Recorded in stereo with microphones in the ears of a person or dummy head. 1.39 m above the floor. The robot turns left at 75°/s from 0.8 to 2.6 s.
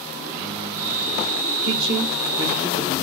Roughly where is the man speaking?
Right.